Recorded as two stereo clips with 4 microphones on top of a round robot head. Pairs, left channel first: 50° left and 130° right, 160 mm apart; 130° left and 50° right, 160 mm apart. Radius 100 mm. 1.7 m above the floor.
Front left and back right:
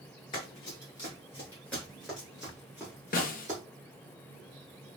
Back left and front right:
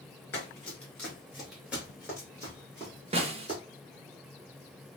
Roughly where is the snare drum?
Ahead.